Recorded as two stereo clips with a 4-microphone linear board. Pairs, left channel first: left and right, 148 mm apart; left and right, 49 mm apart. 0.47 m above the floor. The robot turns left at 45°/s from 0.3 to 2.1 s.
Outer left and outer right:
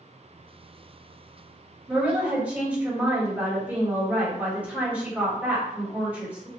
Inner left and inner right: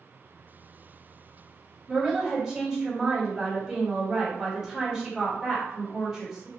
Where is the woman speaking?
15° right (ahead or behind), 1.3 m; by 6.5 s 10° right (ahead or behind), 1.3 m.